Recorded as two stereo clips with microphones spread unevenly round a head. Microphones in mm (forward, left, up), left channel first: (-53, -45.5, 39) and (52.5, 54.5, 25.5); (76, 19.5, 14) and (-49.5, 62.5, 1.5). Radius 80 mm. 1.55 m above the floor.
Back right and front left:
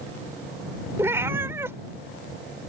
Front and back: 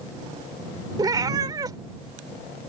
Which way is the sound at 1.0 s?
115° left.